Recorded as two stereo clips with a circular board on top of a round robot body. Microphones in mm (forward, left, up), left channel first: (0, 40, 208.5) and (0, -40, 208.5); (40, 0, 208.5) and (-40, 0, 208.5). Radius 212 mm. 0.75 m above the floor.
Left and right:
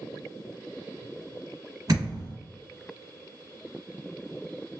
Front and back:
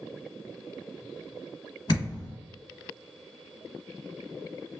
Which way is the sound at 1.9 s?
40° right.